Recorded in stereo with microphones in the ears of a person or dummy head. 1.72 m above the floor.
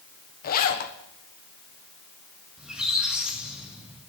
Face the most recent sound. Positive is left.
turn(degrees=0)  # may be behind; listen again after turning